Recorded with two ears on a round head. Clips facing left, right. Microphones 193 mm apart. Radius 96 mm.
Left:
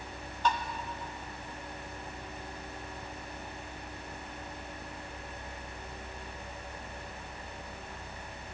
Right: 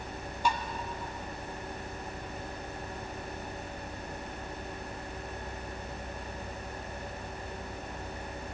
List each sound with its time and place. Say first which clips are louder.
0.5 s tapping: even; 10° right (ahead or behind), 0.7 m